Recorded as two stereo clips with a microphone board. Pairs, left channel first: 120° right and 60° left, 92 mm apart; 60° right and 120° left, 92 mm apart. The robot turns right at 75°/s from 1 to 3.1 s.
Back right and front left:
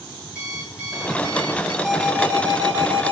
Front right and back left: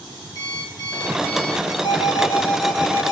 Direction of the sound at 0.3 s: 20° right.